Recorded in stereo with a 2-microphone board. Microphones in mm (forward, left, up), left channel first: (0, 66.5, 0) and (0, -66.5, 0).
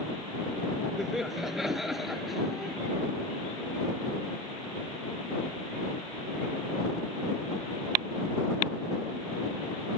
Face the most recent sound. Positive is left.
turn(degrees=0)  # may be behind; listen again after turning